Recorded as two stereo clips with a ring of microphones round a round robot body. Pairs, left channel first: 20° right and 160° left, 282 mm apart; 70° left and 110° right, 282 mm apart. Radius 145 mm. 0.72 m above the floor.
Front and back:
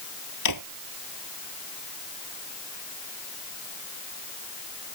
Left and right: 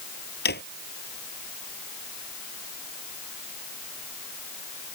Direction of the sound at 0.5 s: 10° left.